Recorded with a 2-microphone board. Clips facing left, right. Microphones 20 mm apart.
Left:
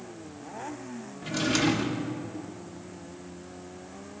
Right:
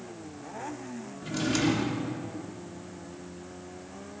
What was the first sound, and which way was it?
A drawer, 20° left (ahead or behind).